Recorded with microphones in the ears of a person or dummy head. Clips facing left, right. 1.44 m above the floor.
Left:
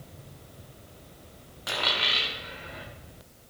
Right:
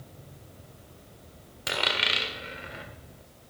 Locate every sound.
1.7 s a dropped coin: 40° right (ahead or behind), 1.4 m